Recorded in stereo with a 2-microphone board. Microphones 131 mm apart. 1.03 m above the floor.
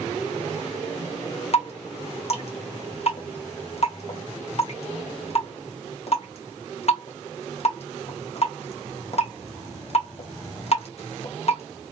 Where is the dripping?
55° left (ahead or behind), 0.7 m.